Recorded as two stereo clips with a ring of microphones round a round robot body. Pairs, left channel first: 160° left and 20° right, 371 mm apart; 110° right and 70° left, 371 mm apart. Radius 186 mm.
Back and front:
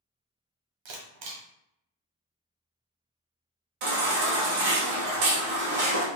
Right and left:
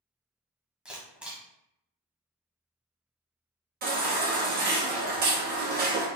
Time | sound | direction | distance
0.8 | a camera shutter | 20° right | 1.2 m
3.8 | a baby crying | straight ahead | 1.4 m